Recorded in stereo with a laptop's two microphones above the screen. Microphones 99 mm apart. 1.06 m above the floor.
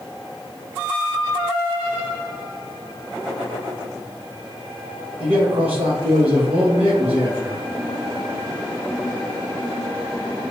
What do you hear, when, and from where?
5.2 s a man speaking: 80° right, 1.0 m